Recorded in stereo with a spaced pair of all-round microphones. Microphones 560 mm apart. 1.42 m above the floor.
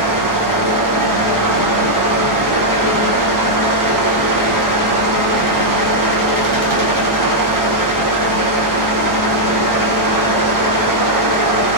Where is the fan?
35° right (ahead or behind), 0.9 m.